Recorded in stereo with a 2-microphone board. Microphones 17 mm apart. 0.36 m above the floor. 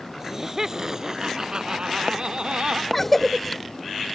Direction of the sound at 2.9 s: 10° left (ahead or behind).